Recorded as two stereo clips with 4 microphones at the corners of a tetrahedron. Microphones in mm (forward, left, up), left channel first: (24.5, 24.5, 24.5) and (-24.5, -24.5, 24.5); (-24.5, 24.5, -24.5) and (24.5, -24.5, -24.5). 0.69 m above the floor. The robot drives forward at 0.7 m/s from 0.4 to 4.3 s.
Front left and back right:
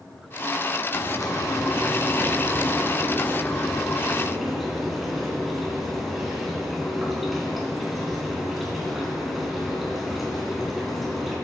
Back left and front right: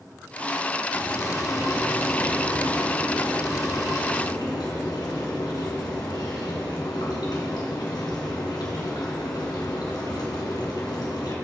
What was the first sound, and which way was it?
Frying, 75° left.